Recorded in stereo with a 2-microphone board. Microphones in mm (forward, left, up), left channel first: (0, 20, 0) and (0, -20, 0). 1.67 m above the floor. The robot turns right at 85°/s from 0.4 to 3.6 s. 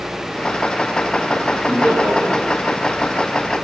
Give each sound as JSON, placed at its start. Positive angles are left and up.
{"t": 1.7, "sound": "laughter", "side_deg": -25, "distance_m": 0.9}